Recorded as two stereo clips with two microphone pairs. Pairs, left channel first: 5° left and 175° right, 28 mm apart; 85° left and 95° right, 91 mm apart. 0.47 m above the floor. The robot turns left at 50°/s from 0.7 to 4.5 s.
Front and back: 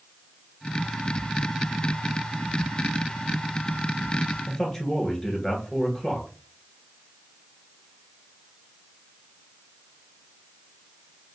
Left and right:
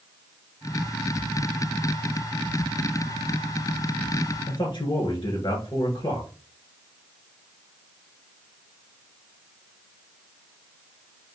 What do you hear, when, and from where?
4.5 s a man speaking: 85° left, 2.0 m